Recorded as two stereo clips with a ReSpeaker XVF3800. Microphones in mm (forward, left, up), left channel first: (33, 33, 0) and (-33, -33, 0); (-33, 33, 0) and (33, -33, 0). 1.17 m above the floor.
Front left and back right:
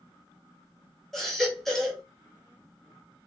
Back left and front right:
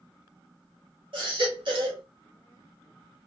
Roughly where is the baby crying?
Ahead right.